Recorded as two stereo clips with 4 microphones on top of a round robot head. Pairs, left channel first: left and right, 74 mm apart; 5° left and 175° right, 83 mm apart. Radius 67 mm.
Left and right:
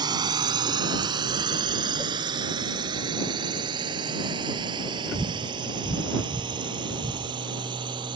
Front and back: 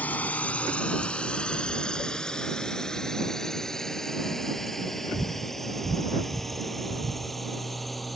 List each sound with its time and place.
0.0 s a drone: 70° right; by 8.2 s 85° right